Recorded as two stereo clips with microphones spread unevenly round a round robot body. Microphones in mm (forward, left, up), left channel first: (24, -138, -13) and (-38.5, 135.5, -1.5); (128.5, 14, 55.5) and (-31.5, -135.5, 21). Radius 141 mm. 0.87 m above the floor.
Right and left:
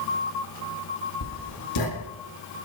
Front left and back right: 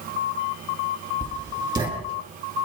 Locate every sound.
1.2 s writing: 65° right, 7.5 m